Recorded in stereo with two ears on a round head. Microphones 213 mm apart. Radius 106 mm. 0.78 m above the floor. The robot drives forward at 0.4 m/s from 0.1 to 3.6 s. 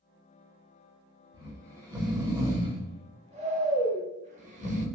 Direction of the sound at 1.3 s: 15° right (ahead or behind).